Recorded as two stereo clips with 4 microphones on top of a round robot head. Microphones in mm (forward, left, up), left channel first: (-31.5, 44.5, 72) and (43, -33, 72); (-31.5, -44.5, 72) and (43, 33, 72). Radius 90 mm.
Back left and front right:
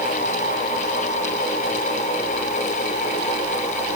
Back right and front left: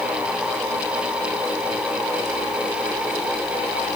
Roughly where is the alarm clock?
No alarm clock in this recording.